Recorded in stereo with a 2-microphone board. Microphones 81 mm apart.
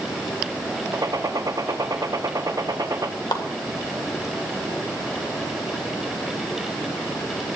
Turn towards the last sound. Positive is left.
turn(degrees=60)  # may be behind; listen again after turning